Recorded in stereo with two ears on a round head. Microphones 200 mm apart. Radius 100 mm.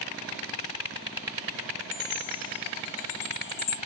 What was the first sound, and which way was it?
A chime, 40° left (ahead or behind).